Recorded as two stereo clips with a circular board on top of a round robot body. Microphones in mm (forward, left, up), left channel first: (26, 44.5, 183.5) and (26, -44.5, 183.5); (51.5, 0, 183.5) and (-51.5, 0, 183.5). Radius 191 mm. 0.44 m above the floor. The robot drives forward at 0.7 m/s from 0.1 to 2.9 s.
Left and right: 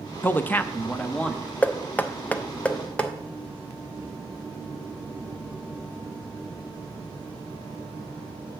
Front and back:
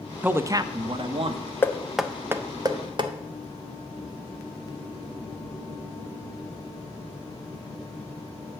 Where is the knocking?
40° left, 0.9 m; by 3.1 s 165° left, 1.1 m.